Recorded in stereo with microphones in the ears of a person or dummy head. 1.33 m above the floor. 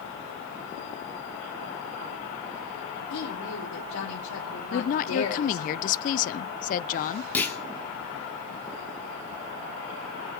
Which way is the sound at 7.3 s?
10° left (ahead or behind).